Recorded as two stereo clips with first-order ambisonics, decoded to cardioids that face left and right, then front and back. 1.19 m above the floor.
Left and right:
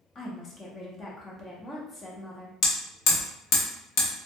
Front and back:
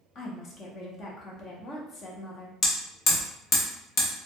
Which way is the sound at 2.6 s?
55° left.